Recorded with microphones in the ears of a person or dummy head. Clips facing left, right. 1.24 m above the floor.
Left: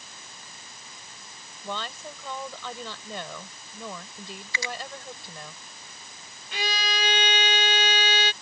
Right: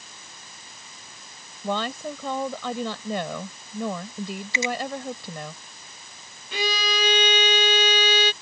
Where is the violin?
70° right (ahead or behind).